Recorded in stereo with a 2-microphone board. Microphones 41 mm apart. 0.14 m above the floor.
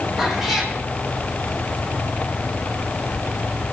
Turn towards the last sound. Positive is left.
turn(degrees=-5)  # may be behind; listen again after turning